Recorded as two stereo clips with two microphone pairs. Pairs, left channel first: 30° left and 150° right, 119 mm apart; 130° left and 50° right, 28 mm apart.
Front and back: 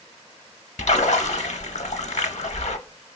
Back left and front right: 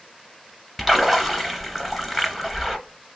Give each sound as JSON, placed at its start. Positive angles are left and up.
{"t": 0.8, "sound": "a splash", "azimuth_deg": 40, "distance_m": 0.5}